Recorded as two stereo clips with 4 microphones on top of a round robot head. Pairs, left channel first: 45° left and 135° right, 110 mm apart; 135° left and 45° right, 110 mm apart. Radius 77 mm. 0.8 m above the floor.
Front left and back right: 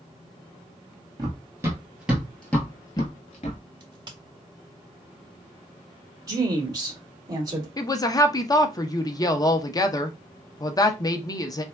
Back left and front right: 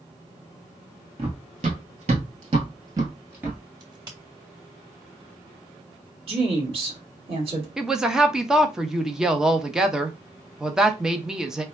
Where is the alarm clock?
No alarm clock in this recording.